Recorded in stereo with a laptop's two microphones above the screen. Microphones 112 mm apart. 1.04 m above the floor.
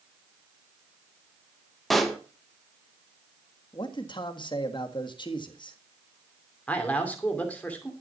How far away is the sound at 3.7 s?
About 1.5 m.